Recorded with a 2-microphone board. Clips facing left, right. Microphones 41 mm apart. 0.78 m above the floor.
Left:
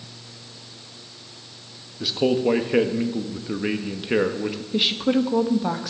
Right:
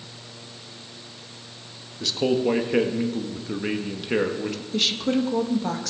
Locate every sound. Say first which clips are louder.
2.0 s a man speaking: left 2 dB; 10° left (ahead or behind), 0.8 m
4.7 s a woman speaking: left 3 dB; 15° left (ahead or behind), 0.8 m